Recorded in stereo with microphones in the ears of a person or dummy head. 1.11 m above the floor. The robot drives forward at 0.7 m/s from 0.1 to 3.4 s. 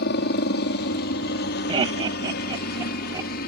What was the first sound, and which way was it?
A helicopter, 55° left (ahead or behind).